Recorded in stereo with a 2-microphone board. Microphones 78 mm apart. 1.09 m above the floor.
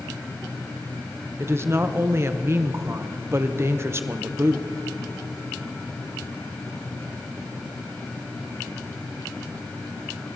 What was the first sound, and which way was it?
A woman speaking, 35° right (ahead or behind).